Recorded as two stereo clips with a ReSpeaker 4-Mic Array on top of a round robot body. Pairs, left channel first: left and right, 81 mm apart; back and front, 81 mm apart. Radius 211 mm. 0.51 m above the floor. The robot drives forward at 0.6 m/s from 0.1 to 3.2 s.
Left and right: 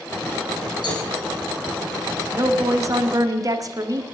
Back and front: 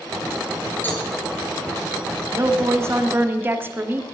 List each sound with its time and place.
0.8 s a cowbell: 115° left, 5.5 m
2.3 s a woman speaking: 45° right, 2 m; by 4.0 s 55° right, 1.9 m